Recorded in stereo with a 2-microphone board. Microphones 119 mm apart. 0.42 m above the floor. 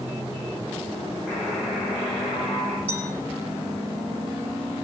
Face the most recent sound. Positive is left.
turn(degrees=-15)  # may be behind; listen again after turning